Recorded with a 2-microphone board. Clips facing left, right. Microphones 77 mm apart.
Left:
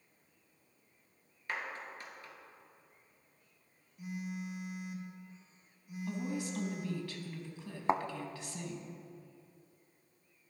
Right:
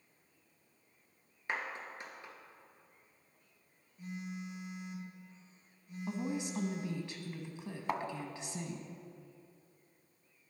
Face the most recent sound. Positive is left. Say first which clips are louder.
# left 5 dB
turn(degrees=25)  # may be behind; listen again after turning